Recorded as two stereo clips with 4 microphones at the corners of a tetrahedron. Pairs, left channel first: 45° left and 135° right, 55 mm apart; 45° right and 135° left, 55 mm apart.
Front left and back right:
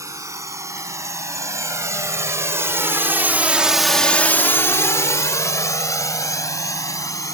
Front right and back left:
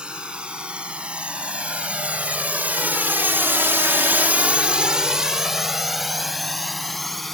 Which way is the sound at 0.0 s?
155° right.